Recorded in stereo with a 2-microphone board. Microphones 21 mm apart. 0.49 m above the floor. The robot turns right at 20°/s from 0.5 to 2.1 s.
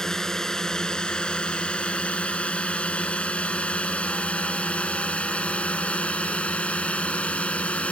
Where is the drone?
25° left (ahead or behind); by 7.9 s 80° left.